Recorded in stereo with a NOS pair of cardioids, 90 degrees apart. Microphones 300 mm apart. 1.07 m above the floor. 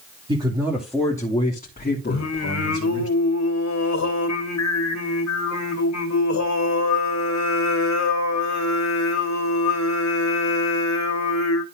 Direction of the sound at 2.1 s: 70° left.